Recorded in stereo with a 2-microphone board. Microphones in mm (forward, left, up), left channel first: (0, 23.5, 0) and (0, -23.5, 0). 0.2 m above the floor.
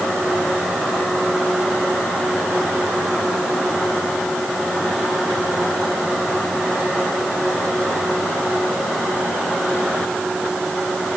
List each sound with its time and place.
Only background noise.